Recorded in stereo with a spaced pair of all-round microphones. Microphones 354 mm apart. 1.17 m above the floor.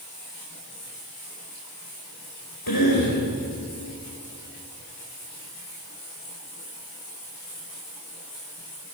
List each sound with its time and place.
2.7 s a cough: 85° left, 5 m